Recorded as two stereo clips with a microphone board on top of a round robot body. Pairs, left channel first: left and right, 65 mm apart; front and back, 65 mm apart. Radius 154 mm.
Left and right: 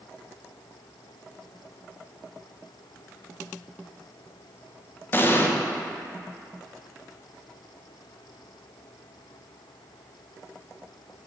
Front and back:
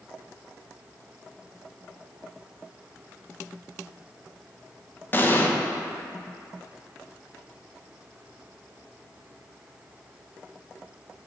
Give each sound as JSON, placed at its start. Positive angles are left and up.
{"t": 5.1, "sound": "an explosion", "azimuth_deg": 45, "distance_m": 0.9}